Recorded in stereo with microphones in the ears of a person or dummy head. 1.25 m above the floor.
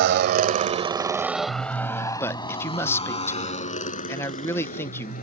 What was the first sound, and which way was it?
A motorcycle, 60° right (ahead or behind).